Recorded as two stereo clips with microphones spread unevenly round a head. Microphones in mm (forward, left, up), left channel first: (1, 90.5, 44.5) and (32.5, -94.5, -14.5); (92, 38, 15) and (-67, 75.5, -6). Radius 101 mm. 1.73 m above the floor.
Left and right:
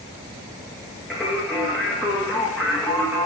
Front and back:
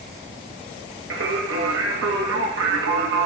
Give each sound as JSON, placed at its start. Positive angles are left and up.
{"t": 1.1, "sound": "singing", "azimuth_deg": -175, "distance_m": 2.0}